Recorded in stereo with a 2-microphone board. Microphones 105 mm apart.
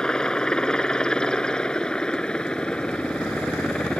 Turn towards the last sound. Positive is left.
turn(degrees=10)  # may be behind; listen again after turning